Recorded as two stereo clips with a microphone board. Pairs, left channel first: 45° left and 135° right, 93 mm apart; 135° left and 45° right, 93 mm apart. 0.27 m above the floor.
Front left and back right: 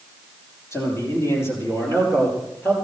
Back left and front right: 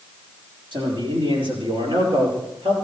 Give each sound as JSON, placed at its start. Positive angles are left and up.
{"t": 0.7, "sound": "a man speaking", "azimuth_deg": -15, "distance_m": 8.5}